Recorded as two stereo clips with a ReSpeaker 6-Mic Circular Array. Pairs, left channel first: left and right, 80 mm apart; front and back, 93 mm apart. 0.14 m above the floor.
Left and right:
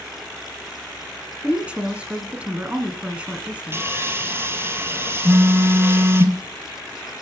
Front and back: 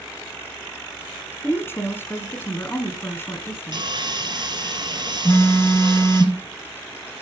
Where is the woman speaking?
30° right, 1.5 m.